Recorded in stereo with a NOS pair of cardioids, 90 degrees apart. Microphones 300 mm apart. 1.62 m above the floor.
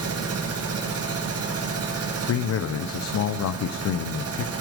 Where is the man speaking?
65° left, 0.8 m.